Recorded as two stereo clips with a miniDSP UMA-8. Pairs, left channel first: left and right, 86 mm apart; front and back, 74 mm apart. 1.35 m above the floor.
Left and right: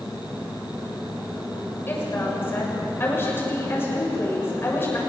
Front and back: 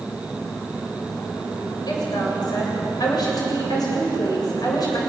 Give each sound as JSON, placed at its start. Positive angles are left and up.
{"t": 1.9, "sound": "a woman speaking", "azimuth_deg": 25, "distance_m": 6.5}